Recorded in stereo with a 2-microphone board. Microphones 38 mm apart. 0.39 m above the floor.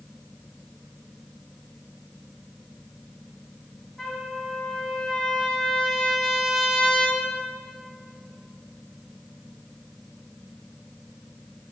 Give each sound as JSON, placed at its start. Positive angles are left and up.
{"t": 4.0, "sound": "a trumpet", "side_deg": 10, "distance_m": 2.0}